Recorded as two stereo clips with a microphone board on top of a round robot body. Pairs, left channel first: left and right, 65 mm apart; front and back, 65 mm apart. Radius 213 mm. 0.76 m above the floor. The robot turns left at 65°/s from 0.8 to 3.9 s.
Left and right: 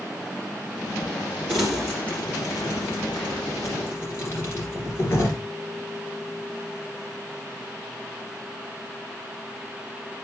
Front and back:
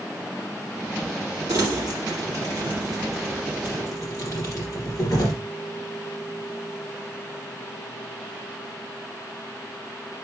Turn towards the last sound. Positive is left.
turn(degrees=40)